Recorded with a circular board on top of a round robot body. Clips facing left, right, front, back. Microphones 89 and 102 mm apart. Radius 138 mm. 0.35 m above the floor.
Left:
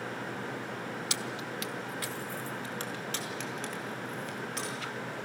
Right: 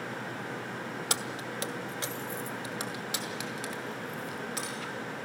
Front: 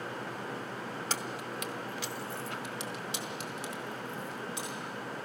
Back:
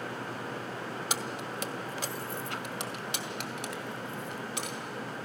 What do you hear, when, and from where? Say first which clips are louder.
1.1 s keys jangling: right 1 dB, back 2 dB; 110° right, 1.1 m; by 4.8 s straight behind, 3.5 m